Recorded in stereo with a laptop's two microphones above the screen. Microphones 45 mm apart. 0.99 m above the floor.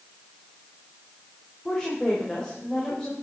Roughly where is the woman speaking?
Centre.